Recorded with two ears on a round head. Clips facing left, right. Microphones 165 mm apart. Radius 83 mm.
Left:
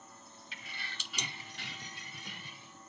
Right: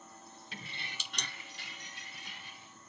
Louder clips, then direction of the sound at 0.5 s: Right 2 dB; 30° right (ahead or behind).